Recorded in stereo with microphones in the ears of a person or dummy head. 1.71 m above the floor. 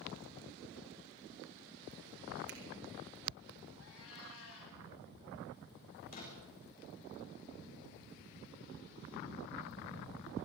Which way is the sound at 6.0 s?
45° left (ahead or behind).